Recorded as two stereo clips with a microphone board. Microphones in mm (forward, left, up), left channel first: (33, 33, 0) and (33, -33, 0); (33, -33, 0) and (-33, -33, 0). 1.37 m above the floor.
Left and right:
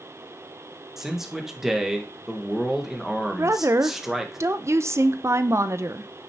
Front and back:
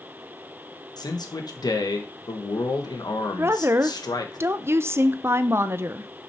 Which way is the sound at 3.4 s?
130° right.